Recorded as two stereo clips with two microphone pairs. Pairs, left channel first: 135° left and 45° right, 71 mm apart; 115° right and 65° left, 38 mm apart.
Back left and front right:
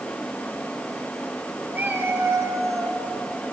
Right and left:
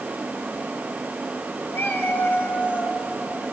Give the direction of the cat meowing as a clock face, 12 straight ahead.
4 o'clock.